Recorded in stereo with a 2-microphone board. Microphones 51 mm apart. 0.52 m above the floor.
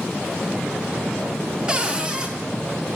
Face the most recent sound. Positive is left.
turn(degrees=-20)  # may be behind; listen again after turning